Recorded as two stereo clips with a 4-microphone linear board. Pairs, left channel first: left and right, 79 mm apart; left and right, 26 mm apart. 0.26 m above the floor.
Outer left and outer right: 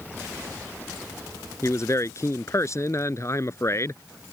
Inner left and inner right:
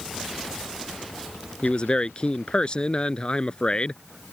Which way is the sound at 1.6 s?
40° left (ahead or behind).